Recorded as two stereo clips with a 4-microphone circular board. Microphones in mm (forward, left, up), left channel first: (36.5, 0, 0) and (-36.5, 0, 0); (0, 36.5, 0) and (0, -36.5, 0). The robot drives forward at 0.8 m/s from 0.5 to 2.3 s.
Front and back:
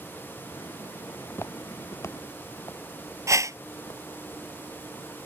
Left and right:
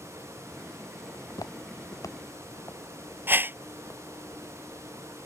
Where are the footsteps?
60° left; by 4.0 s 30° left.